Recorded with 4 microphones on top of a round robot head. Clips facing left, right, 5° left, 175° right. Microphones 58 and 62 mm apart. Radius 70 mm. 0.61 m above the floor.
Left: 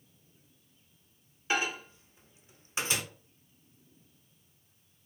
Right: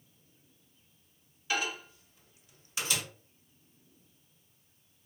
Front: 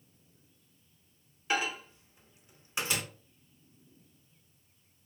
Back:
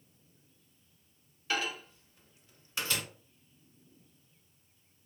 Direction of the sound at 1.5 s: 60° left.